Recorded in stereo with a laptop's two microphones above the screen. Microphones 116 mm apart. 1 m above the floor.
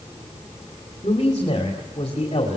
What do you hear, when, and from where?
1.0 s a man speaking: 55° left (ahead or behind), 3 m